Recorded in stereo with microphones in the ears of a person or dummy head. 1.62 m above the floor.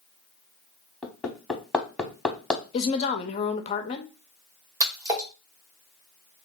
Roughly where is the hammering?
Centre.